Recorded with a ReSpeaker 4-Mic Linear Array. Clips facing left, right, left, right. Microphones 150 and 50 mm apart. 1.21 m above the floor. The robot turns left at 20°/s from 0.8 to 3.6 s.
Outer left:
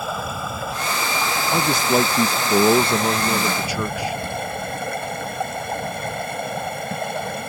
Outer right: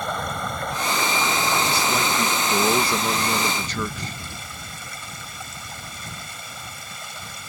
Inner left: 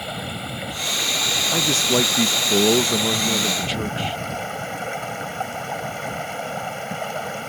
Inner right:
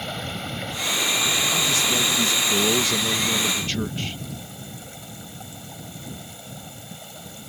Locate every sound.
0.0 s running water: 175° left; by 7.5 s 120° left
1.5 s a man speaking: 55° left; by 4.2 s 10° left